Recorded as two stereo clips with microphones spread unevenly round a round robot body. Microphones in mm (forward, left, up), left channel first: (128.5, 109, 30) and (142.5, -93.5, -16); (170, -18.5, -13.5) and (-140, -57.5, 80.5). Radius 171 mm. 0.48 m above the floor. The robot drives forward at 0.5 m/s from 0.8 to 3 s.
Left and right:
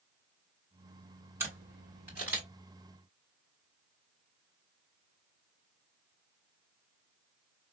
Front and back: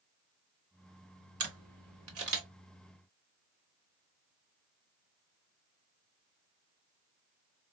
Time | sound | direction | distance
1.4 | a camera shutter | 135° right | 1.3 m